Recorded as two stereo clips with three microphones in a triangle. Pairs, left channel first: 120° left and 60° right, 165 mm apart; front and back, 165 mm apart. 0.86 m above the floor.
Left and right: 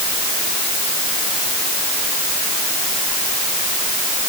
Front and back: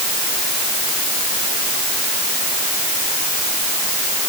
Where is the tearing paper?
No tearing paper in this recording.